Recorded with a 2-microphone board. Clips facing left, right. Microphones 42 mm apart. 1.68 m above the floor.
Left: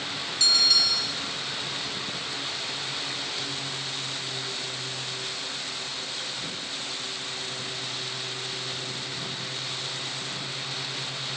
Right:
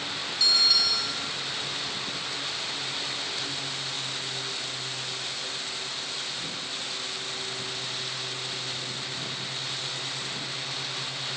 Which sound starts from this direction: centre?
A bell, at 0.4 s.